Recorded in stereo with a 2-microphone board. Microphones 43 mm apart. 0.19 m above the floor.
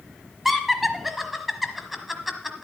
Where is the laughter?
5° right (ahead or behind), 1.2 m.